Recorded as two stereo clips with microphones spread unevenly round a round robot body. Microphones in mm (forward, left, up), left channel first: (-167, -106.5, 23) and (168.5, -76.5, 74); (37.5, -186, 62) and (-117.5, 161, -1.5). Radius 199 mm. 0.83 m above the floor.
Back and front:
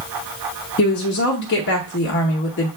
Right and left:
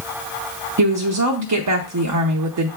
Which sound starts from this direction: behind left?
A woman speaking, at 0.8 s.